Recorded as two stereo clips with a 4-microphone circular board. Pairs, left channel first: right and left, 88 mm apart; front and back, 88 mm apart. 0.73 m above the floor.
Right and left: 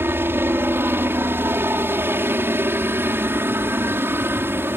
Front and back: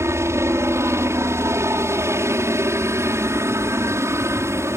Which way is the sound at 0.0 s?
140° left.